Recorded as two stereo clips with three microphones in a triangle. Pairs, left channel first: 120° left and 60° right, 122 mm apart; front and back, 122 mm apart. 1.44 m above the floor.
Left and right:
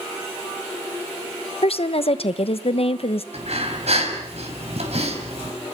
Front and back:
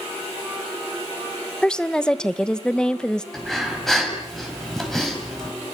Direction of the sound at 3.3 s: 85° right.